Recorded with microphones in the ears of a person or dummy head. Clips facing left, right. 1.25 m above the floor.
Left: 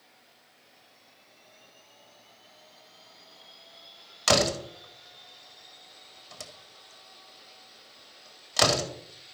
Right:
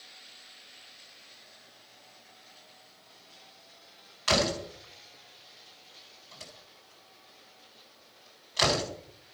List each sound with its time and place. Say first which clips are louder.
4.3 s a door slam: left 3 dB; 65° left (ahead or behind), 2.0 m